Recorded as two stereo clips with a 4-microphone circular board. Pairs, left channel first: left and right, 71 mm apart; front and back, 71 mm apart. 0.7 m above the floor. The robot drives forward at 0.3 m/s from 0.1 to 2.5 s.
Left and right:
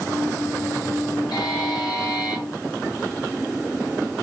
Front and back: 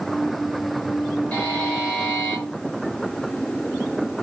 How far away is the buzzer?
About 3.5 m.